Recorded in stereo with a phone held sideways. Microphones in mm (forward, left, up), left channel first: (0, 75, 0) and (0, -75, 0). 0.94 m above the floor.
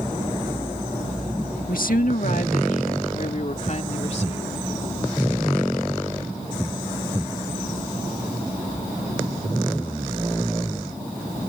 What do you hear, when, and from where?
1.7 s a woman speaking: 70° left (ahead or behind); by 4.6 s 45° left (ahead or behind)